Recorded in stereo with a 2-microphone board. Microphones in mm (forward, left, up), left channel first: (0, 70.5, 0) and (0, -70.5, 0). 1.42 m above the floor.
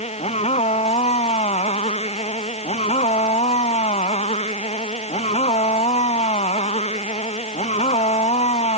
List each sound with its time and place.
0.0 s a motorcycle: 50° left (ahead or behind)